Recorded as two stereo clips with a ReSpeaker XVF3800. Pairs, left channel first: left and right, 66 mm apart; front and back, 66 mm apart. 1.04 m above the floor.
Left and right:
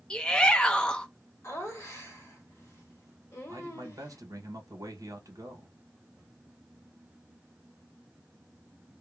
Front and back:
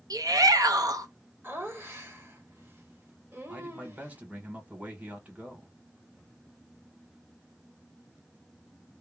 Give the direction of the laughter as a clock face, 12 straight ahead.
8 o'clock.